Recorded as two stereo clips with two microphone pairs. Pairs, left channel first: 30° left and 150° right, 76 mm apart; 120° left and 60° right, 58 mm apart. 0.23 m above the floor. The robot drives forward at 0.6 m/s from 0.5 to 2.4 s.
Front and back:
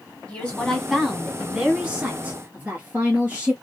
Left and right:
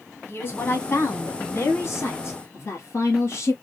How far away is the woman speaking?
About 1.2 m.